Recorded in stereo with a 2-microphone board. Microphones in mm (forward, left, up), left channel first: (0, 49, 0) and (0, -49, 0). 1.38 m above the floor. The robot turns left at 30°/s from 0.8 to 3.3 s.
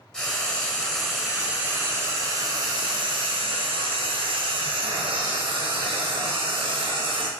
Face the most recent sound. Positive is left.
turn(degrees=-70)